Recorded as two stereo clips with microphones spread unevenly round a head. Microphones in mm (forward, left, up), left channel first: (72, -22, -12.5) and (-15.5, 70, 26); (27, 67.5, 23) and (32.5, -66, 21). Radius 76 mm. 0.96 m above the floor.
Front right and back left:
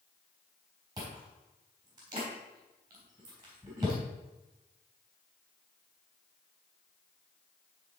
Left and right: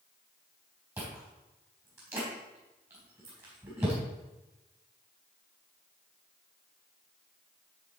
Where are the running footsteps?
No running footsteps in this recording.